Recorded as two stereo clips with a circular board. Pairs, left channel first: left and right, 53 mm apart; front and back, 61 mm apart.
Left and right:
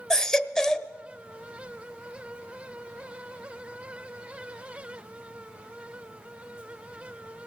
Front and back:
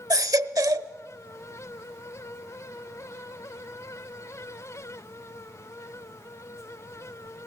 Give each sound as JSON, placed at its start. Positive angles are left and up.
{"t": 0.1, "sound": "a baby crying", "azimuth_deg": 170, "distance_m": 0.9}